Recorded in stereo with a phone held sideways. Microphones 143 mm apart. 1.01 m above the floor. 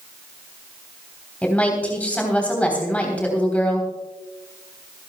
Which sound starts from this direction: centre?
A woman speaking, at 1.4 s.